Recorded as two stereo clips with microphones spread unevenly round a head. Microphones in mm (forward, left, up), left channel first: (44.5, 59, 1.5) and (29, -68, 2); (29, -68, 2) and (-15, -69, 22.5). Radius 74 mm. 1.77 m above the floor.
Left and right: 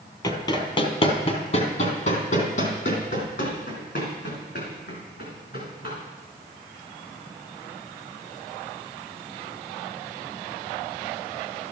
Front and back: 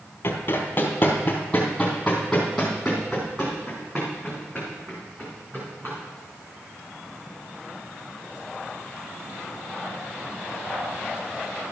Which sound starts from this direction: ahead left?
Running footsteps, at 0.2 s.